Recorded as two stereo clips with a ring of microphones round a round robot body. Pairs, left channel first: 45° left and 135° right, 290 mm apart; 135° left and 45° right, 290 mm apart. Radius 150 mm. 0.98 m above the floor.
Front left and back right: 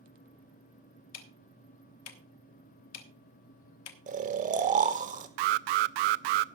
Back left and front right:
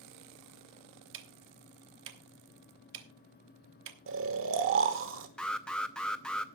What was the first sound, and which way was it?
Ticking, 5° left.